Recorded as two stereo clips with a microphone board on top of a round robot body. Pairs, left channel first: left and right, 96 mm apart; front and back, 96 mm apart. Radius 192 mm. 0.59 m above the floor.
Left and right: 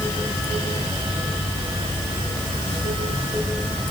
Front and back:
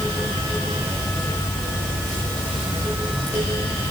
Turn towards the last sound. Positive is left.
No sound to turn to.